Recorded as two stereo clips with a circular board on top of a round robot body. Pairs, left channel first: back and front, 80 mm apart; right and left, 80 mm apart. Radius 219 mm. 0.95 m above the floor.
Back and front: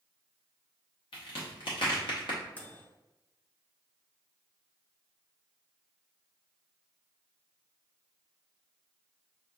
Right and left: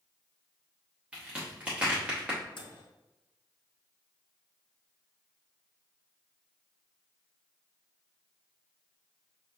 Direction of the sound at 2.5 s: 110° right.